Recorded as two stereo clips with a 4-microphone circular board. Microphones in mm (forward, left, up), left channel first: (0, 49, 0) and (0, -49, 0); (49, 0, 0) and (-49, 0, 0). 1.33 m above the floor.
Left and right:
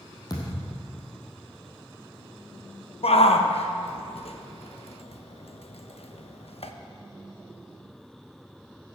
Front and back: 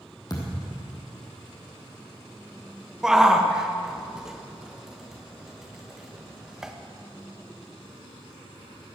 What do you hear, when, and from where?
0.3 s a thud: 45° left, 3 m
3.0 s a shout: 95° left, 1.1 m